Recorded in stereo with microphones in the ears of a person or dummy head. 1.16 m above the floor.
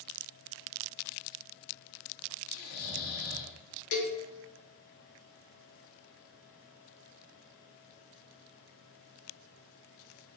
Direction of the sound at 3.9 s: 65° left (ahead or behind).